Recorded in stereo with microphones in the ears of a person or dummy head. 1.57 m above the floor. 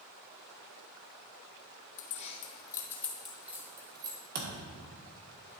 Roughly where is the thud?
Right.